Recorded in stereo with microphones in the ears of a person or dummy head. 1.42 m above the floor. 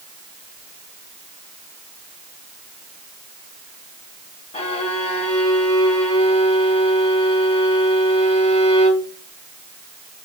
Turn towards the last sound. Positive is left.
turn(degrees=30)  # may be behind; listen again after turning